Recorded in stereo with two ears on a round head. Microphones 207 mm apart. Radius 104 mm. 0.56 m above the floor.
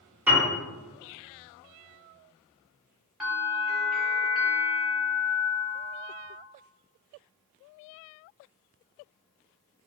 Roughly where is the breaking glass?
I don't hear breaking glass.